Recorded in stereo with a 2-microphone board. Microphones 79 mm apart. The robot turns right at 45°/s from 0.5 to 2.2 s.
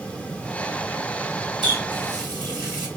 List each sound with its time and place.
1.6 s a running tap: 80° right, 1.2 m; by 2.9 s 70° right (ahead or behind), 1.2 m